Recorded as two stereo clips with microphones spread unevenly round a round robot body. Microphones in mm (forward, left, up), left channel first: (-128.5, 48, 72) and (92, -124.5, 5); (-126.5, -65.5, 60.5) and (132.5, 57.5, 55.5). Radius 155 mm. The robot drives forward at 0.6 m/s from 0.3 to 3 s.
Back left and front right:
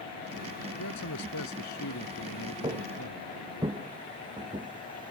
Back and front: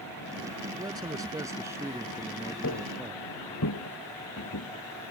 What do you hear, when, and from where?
0.7 s a man speaking: 100° left; by 3.2 s 110° left
2.6 s footsteps: 115° right